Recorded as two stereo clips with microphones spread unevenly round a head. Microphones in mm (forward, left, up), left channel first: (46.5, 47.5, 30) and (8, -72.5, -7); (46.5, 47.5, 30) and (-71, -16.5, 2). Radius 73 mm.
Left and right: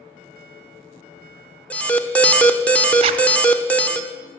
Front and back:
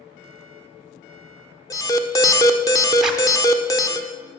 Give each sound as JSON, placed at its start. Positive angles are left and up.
{"t": 1.7, "sound": "an alarm", "azimuth_deg": -30, "distance_m": 1.1}
{"t": 3.0, "sound": "a zipper", "azimuth_deg": -60, "distance_m": 1.0}